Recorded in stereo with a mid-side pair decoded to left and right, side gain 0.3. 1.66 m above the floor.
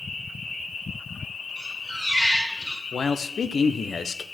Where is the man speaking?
60° left, 0.9 m.